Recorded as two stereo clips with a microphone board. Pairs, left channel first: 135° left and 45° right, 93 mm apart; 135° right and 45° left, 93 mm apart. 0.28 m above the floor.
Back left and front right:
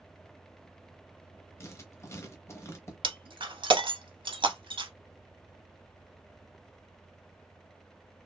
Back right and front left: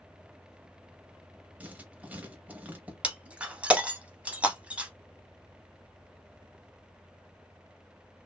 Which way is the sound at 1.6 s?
105° left.